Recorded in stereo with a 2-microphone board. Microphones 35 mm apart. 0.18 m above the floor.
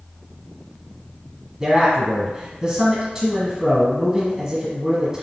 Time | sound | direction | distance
1.6 | a man speaking | 20° right (ahead or behind) | 1.4 m